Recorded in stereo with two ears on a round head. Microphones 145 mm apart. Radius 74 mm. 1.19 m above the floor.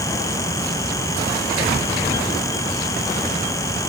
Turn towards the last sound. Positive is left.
No sound to turn to.